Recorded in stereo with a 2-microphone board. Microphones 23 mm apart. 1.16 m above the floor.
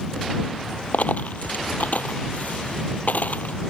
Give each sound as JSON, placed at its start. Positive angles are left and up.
{"t": 0.9, "sound": "a dropped coin", "side_deg": 85}